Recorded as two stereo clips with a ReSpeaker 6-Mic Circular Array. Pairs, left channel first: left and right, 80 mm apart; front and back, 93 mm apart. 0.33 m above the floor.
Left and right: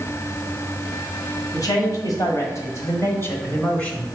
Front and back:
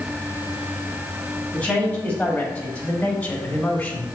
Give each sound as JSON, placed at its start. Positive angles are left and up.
{"t": 1.5, "sound": "a man speaking", "azimuth_deg": 75, "distance_m": 2.0}